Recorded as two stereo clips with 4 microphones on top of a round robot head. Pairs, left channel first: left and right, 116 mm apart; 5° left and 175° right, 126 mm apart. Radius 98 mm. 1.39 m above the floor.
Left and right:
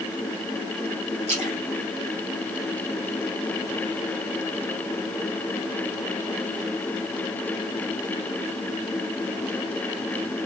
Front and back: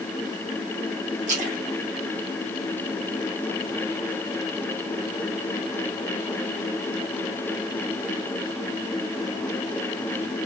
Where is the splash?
140° right, 4 m.